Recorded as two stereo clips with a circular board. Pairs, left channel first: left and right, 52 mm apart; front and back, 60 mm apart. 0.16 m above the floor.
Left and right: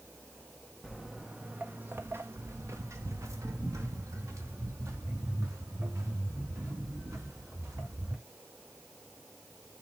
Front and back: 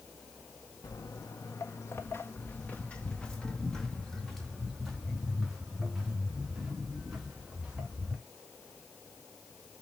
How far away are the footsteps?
About 1.1 m.